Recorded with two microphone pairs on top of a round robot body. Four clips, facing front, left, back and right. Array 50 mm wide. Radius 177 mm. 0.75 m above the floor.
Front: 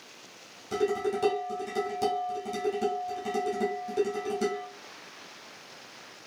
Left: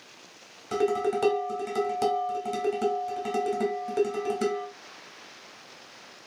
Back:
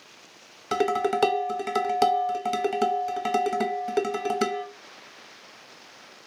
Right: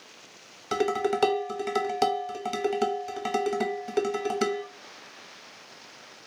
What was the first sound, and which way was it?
Dishes clattering, 155° right.